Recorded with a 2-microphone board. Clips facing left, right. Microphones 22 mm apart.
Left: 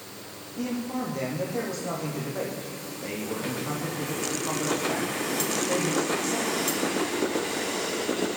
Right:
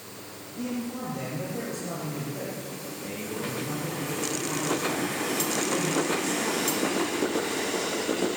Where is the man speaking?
30° left (ahead or behind), 9 m.